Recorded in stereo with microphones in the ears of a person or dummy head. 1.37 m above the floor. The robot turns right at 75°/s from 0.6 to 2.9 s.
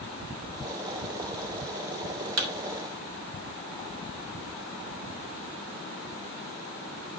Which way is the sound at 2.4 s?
50° right (ahead or behind).